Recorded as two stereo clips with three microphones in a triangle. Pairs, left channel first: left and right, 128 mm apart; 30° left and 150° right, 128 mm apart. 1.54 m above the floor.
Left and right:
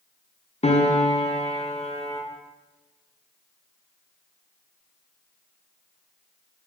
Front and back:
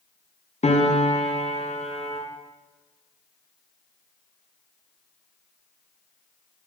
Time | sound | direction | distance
0.6 | a piano | 60° left | 0.7 m